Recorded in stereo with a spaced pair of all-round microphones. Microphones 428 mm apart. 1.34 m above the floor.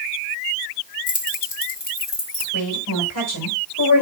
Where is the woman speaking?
45° left (ahead or behind), 4.5 m.